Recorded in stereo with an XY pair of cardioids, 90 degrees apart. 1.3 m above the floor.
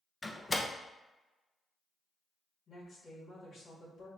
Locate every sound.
0.2 s a door slam: 30° left, 0.6 m
2.7 s a woman speaking: 60° left, 1.7 m